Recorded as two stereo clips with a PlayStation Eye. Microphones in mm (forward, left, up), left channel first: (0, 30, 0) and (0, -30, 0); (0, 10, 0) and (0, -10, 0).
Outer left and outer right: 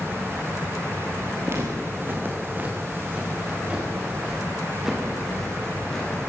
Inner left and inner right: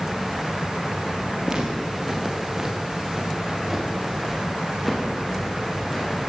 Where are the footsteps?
40° right (ahead or behind), 6 m; by 6.1 s 5° left (ahead or behind), 9 m.